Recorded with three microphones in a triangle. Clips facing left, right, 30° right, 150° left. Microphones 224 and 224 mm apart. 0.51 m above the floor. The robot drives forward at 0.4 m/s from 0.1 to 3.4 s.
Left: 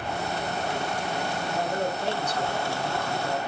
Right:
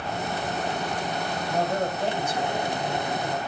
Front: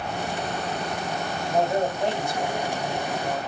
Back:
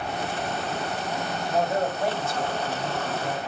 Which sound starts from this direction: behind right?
A man speaking, at 1.5 s.